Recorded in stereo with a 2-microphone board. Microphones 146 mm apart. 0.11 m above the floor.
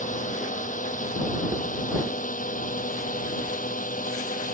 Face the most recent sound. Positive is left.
turn(degrees=70)  # may be behind; listen again after turning